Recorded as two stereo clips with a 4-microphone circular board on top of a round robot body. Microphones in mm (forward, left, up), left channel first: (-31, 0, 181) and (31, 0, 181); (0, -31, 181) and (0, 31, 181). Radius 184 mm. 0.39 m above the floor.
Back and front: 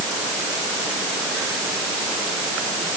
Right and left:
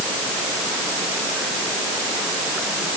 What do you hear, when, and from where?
Only background noise.